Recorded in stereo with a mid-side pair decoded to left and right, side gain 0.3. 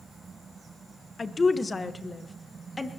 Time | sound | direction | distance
1.2 | a woman speaking | 50° left | 1.1 m